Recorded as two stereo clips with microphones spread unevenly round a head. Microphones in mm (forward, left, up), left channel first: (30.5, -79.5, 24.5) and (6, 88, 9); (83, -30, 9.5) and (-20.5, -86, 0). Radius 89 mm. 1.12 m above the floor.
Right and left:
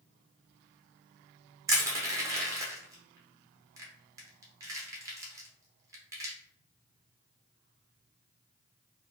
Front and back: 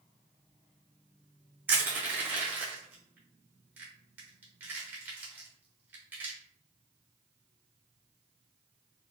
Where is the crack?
No crack in this recording.